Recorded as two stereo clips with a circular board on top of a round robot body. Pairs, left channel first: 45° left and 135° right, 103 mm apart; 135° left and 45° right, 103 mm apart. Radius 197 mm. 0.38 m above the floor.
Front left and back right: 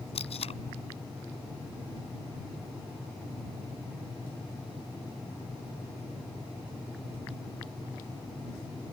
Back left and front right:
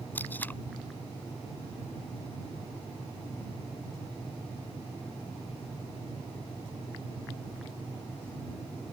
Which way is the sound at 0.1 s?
65° left.